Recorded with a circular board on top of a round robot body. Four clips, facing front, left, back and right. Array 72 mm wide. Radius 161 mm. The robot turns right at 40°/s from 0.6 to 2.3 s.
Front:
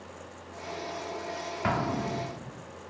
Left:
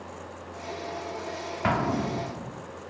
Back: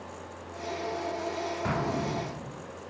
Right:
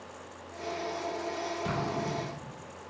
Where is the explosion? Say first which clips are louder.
Left 9 dB, front 3 dB; 70° left, 3 m; by 2.6 s 95° left, 3 m.